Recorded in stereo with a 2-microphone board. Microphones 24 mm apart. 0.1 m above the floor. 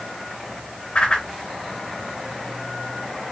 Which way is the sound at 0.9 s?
50° left (ahead or behind).